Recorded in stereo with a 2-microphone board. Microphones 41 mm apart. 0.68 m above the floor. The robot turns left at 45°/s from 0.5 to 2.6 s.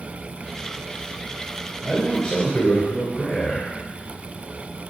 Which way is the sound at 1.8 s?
175° right.